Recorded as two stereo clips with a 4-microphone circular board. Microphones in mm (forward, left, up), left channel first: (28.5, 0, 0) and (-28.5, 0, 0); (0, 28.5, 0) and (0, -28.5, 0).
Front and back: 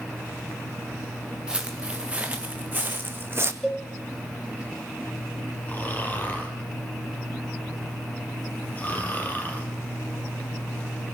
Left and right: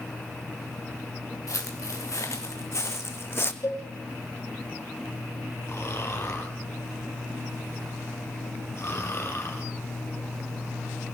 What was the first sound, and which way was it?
Footsteps, 105° left.